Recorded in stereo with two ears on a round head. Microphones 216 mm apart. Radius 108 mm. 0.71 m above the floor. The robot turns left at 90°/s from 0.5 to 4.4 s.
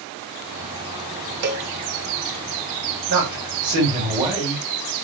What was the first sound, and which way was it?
A cowbell, 45° right (ahead or behind).